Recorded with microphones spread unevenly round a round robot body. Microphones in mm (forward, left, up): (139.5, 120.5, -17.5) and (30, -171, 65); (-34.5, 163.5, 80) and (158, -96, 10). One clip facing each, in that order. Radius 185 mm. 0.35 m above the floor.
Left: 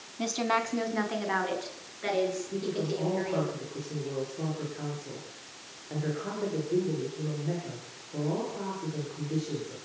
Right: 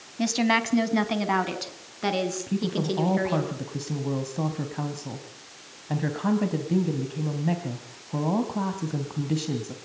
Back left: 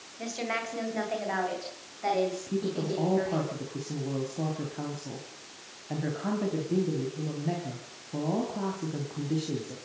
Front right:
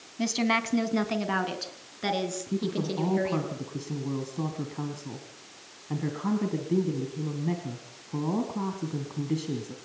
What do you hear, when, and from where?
0.2 s a woman speaking: 60° right, 3 m; by 3.5 s 95° right, 7 m
2.5 s a woman speaking: 125° right, 3 m